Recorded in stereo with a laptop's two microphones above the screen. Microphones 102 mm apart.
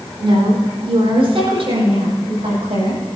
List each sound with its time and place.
0.2 s a woman speaking: 60° right (ahead or behind), 4 m; by 3.0 s 75° right (ahead or behind), 6.5 m